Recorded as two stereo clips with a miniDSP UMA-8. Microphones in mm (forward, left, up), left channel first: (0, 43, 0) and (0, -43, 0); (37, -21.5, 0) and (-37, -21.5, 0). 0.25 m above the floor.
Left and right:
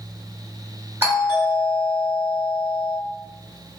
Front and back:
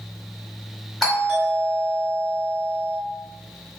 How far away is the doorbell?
About 1.7 m.